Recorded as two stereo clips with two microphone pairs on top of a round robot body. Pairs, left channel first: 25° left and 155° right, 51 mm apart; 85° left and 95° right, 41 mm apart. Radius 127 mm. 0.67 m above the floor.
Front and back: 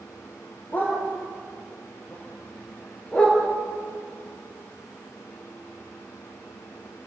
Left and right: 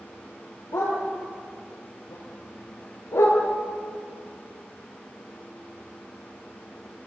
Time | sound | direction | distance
0.7 | a dog barking | 80° left | 6.5 m